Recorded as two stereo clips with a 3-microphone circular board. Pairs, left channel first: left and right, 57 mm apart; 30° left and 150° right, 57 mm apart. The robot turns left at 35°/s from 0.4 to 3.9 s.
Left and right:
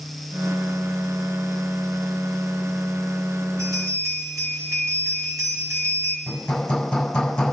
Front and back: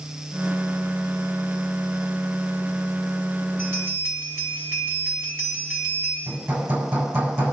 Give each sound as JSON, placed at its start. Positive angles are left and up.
{"t": 3.6, "sound": "a bell", "azimuth_deg": -100, "distance_m": 4.5}
{"t": 6.3, "sound": "hammering", "azimuth_deg": 165, "distance_m": 7.0}